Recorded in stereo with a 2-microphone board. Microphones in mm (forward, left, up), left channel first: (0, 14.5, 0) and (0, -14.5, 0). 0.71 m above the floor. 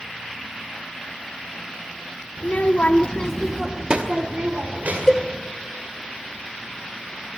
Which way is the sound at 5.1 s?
15° left (ahead or behind).